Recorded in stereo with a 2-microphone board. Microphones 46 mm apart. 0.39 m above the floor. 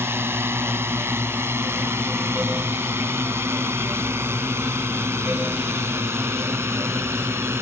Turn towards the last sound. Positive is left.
turn(degrees=-70)  # may be behind; listen again after turning